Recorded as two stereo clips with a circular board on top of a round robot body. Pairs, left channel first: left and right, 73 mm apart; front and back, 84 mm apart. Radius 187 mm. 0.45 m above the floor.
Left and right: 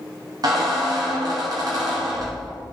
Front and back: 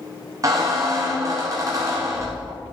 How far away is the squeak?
About 1.0 m.